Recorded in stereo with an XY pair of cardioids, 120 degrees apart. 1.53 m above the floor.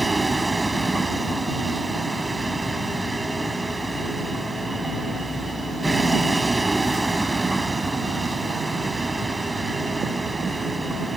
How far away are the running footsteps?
I don't hear running footsteps.